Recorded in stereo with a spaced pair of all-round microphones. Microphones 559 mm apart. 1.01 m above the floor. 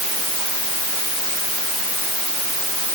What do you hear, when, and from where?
Only background noise.